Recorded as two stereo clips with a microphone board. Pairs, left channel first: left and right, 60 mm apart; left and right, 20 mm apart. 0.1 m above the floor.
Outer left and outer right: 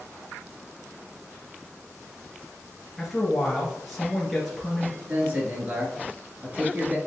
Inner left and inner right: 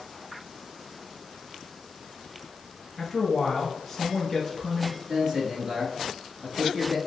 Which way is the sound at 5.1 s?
25° right (ahead or behind).